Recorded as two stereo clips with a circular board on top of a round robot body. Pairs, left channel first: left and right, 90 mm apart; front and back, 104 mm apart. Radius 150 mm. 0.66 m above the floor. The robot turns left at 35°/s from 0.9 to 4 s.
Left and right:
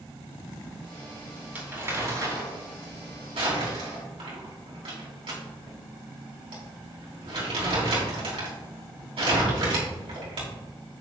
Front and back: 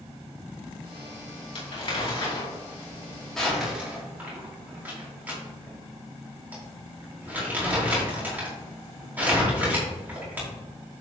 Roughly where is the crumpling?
Ahead.